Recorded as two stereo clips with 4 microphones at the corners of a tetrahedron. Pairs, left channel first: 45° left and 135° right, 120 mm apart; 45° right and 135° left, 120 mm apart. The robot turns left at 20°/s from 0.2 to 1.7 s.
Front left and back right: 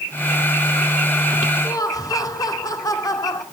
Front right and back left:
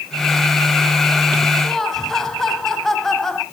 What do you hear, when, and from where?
1.6 s laughter: 40° left, 1.7 m